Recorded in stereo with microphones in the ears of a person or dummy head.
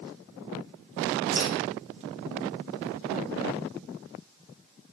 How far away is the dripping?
About 2.5 m.